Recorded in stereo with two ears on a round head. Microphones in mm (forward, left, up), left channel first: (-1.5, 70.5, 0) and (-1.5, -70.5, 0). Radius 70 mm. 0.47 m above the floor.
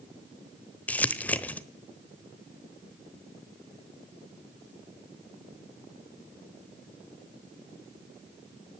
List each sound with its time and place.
0.9 s crumpling: 10° left (ahead or behind), 1.0 m